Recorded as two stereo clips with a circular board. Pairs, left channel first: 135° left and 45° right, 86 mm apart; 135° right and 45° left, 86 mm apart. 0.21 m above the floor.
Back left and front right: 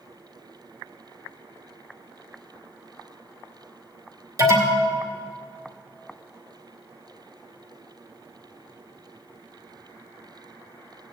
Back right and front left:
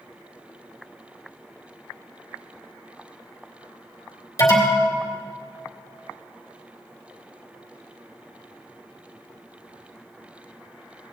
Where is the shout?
I don't hear a shout.